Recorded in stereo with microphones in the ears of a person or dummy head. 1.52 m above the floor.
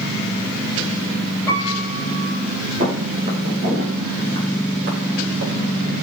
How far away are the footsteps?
About 3 m.